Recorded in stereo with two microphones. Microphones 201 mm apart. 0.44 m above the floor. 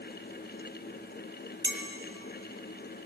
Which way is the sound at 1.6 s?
70° right (ahead or behind).